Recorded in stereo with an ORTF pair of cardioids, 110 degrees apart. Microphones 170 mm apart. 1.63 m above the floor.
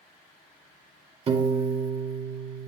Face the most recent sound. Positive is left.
turn(degrees=-35)